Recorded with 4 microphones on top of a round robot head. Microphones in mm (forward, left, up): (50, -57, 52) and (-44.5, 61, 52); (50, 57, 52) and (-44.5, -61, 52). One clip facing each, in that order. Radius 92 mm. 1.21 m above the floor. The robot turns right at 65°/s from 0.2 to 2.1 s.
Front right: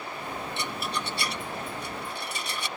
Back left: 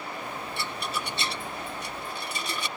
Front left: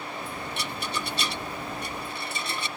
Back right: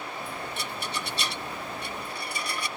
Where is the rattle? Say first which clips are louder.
Even, front left 2 dB; 20° left; by 2.7 s 120° left.